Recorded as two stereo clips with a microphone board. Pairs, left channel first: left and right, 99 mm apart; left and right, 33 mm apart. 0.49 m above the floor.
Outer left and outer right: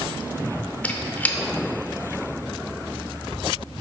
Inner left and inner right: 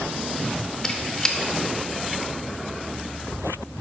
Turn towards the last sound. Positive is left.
turn(degrees=15)  # may be behind; listen again after turning